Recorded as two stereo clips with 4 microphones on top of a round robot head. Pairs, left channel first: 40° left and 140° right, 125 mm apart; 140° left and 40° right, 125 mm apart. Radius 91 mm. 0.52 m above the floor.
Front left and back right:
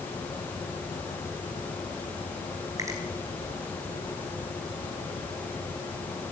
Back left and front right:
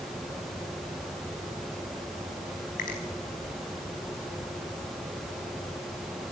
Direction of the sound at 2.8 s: 155° left.